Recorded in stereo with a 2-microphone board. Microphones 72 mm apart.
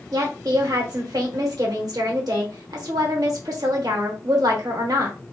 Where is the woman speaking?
60° right (ahead or behind), 1.2 m.